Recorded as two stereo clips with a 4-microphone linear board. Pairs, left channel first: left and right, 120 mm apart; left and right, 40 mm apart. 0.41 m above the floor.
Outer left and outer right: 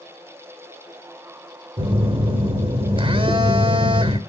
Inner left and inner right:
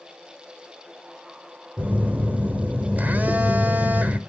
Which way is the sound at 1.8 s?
50° right (ahead or behind).